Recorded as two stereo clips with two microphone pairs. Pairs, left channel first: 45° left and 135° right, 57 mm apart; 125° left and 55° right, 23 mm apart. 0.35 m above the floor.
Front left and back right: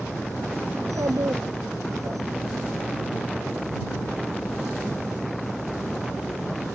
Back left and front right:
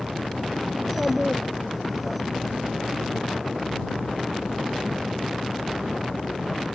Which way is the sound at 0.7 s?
145° right.